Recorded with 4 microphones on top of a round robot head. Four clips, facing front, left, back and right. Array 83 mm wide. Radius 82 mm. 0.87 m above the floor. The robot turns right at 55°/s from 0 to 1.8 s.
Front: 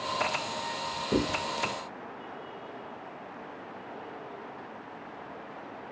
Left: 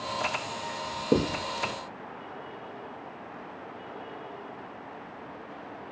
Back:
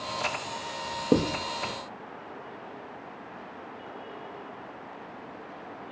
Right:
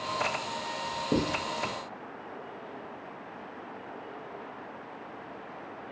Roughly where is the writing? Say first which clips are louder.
Left 4 dB, back 4 dB; behind.